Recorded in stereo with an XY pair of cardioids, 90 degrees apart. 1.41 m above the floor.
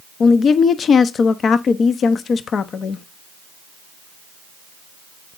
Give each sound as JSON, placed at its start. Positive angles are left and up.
{"t": 0.2, "sound": "a woman speaking", "azimuth_deg": 60, "distance_m": 0.6}